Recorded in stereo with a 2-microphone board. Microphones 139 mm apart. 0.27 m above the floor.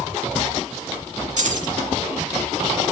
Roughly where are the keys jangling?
Right.